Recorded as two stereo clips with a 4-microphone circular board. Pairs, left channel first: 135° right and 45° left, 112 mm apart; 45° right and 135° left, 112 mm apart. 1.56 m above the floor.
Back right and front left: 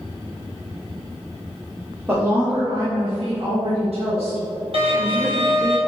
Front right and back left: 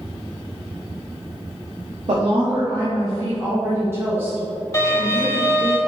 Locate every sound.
2.1 s a woman speaking: 120° left, 0.8 m; by 5.7 s 50° left, 2 m
4.7 s a violin: 15° left, 1.0 m